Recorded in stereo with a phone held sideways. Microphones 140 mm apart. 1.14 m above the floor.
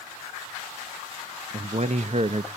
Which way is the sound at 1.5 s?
50° right (ahead or behind).